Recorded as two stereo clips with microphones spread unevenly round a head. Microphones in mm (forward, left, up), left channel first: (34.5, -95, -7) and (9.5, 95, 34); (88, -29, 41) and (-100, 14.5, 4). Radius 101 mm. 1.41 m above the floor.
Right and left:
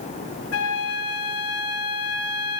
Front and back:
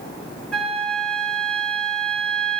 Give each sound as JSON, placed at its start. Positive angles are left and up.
{"t": 0.5, "sound": "a flute", "azimuth_deg": -90, "distance_m": 1.5}